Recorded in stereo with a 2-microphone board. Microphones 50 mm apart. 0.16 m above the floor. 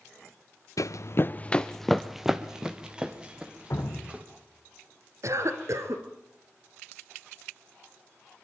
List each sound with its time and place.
0.8 s running footsteps: 85° left, 0.8 m; by 4.2 s 20° right (ahead or behind), 4 m
3.7 s dripping: 60° left (ahead or behind), 4 m
5.2 s a cough: 65° right (ahead or behind), 2.5 m